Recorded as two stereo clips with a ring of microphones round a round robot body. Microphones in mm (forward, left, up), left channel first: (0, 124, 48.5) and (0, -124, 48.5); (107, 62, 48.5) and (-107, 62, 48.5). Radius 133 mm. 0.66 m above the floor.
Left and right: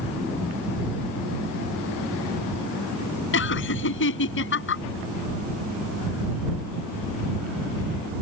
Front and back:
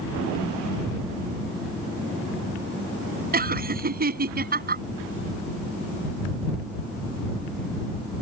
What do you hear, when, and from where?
3.3 s laughter: 135° left